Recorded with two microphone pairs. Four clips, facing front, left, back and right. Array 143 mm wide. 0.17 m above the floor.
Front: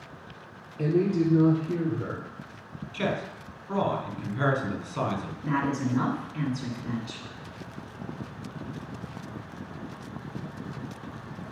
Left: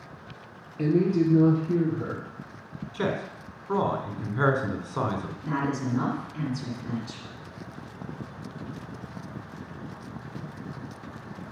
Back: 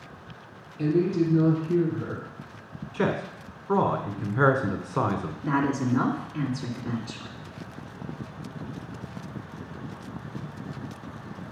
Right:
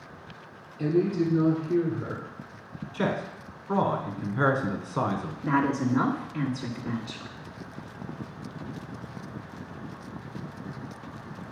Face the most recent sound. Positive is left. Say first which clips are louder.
# right 5 dB, back 2 dB
turn(degrees=-130)